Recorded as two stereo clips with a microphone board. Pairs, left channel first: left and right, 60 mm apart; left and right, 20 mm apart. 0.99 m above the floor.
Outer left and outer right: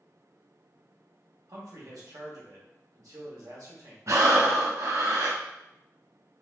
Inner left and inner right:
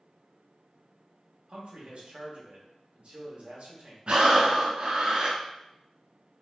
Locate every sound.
1.5 s a man speaking: 75° right (ahead or behind), 1.2 m
4.1 s breathing: 55° right (ahead or behind), 0.7 m